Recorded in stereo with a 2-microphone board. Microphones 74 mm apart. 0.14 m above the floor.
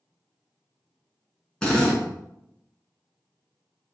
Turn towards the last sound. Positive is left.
turn(degrees=10)  # may be behind; listen again after turning